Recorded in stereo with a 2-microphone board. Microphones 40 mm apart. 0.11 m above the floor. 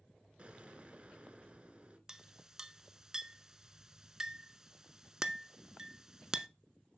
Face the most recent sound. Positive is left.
turn(degrees=-15)  # may be behind; listen again after turning